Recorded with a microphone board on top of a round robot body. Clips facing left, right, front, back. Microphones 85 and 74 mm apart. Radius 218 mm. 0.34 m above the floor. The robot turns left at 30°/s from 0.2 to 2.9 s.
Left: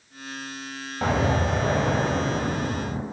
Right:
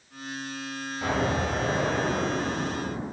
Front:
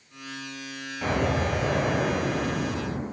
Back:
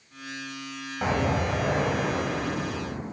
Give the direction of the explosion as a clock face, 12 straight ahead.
8 o'clock.